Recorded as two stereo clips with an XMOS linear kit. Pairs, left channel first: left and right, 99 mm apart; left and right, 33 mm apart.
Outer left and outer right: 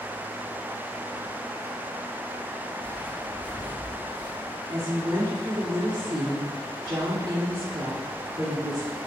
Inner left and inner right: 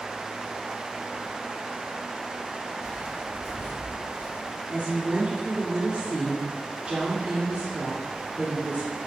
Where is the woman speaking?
40° right (ahead or behind), 1.4 m.